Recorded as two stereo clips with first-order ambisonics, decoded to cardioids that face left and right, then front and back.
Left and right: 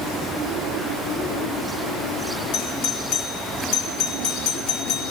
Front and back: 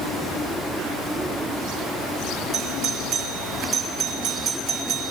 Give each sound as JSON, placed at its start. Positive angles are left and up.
{"t": 2.5, "sound": "a doorbell", "azimuth_deg": 115, "distance_m": 4.0}